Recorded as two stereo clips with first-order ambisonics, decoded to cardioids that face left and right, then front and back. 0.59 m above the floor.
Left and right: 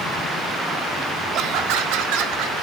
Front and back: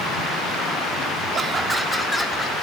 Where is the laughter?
120° right, 0.9 m; by 2.5 s 70° right, 1.6 m.